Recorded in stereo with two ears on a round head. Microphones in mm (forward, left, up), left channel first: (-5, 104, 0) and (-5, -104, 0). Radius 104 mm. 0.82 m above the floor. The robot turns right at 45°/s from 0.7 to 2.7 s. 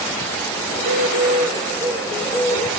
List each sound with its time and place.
0.7 s a bird: 65° right, 2 m; by 2.7 s 25° left, 2 m